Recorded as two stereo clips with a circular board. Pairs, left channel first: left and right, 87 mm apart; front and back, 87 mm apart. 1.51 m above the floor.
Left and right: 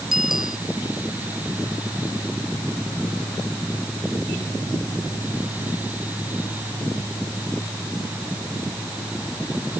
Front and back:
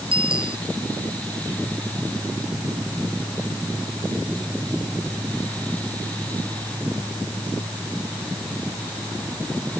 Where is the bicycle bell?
175° right.